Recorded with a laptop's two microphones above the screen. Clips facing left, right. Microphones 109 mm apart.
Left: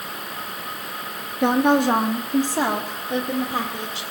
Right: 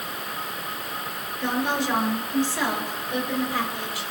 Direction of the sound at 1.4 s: 65° left (ahead or behind).